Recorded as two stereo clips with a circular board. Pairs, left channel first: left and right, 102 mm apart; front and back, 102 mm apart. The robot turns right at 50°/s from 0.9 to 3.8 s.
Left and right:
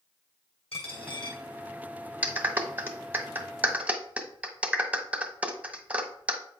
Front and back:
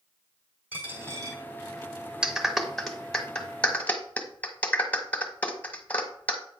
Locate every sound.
0.7 s a dropped coin: 110° left, 2 m; by 1.4 s 135° left, 2 m
2.2 s a clap: 120° right, 0.9 m; by 6.4 s 40° right, 0.9 m